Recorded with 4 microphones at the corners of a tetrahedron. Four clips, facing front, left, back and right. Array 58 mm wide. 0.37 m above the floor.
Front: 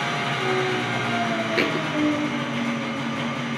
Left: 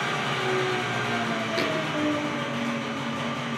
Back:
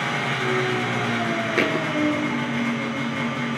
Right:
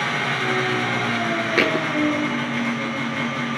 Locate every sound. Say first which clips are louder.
0.0 s an engine running: right 4 dB, back 1 dB; 110° right, 4 m
1.6 s a thud: right 9 dB, back 2 dB; 105° right, 0.8 m